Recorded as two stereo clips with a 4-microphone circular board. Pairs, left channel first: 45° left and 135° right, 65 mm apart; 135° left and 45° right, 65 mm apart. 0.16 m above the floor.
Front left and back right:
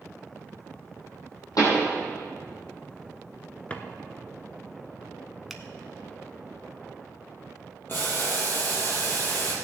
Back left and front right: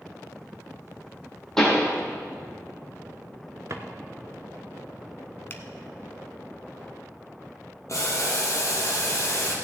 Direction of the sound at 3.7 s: 20° right.